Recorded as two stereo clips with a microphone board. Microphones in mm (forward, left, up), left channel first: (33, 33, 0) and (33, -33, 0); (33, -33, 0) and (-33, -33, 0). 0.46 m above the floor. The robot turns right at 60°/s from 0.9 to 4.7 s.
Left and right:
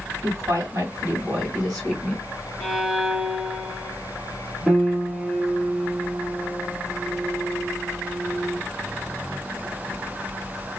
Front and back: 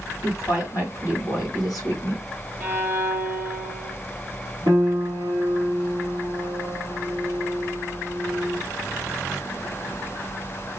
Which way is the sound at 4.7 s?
Straight behind.